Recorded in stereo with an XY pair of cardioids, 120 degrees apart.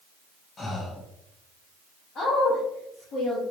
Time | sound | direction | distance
0.6 | breathing | 35° left | 1.0 m
2.1 | a woman speaking | 55° left | 1.6 m